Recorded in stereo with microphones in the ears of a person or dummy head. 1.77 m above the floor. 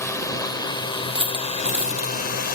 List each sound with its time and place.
0.0 s a drone: 5° left (ahead or behind); by 2.6 s 40° left (ahead or behind)
1.1 s a dropped coin: 10° right (ahead or behind)